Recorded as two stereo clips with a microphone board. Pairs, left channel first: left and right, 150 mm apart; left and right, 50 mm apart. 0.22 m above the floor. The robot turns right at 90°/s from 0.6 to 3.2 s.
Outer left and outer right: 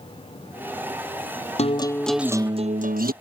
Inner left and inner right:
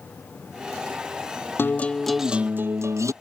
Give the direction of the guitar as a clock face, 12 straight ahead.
8 o'clock.